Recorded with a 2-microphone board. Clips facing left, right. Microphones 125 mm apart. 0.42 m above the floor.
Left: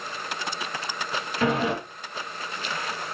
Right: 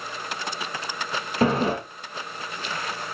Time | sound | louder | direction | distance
1.4 | a sliding door | right 3 dB | 35° right (ahead or behind) | 4.5 m